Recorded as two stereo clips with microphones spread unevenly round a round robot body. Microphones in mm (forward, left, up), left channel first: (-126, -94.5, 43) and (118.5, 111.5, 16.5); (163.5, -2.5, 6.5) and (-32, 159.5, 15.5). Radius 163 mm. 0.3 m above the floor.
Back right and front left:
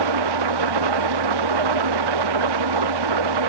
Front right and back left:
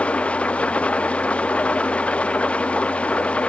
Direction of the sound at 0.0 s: 45° left.